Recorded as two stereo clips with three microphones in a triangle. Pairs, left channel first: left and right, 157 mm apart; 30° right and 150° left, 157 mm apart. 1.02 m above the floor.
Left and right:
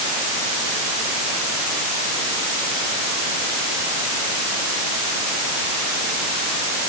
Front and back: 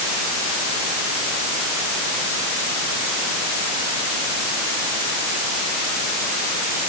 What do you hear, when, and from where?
Only background noise.